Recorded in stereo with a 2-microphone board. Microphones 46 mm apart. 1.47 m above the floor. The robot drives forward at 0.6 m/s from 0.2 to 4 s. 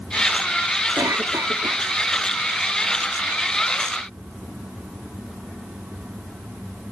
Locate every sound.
1.0 s a cough: 85° right; by 1.8 s 80° right